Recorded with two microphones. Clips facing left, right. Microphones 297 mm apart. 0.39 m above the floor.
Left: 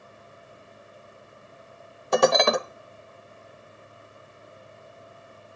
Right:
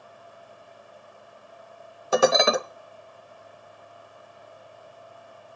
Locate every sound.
2.1 s dishes clattering: 5° right (ahead or behind), 1.0 m